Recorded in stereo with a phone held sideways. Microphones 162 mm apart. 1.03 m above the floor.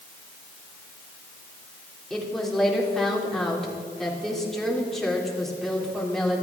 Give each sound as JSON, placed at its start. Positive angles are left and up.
{"t": 2.1, "sound": "a woman speaking", "side_deg": 0, "distance_m": 2.5}